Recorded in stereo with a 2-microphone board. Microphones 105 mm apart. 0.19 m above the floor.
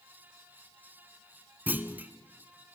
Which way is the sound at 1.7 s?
15° right (ahead or behind).